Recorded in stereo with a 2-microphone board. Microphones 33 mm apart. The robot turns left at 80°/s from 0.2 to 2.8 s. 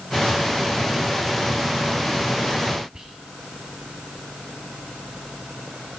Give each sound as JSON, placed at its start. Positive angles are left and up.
{"t": 2.9, "sound": "whispering", "side_deg": -20, "distance_m": 1.5}